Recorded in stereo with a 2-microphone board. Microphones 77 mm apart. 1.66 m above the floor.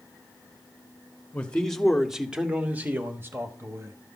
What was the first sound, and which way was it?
A man speaking, 15° left (ahead or behind).